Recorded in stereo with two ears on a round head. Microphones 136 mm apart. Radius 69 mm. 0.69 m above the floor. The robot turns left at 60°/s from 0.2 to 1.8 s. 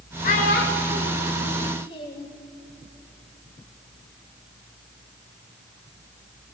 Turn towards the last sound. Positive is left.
turn(degrees=35)  # may be behind; listen again after turning